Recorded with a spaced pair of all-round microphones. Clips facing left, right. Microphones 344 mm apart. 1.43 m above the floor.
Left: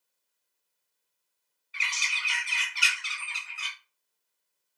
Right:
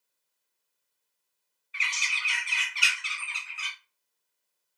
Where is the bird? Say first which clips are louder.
Even; 55° left (ahead or behind), 0.8 m.